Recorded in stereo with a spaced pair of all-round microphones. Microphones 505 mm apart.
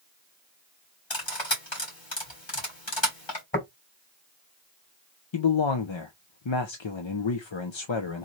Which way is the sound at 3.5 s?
20° left (ahead or behind).